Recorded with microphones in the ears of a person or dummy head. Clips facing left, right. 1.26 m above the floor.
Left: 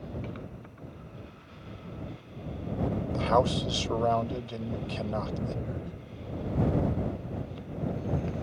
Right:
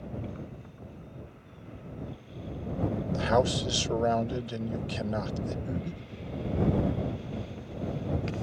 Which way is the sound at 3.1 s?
10° right (ahead or behind).